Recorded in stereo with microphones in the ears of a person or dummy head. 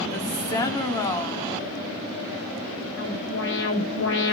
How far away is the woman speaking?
About 4 m.